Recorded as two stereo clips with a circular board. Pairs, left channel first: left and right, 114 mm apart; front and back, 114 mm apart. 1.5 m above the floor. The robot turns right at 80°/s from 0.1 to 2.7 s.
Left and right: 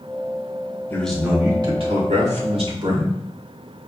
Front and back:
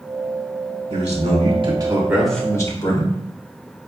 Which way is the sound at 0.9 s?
160° left.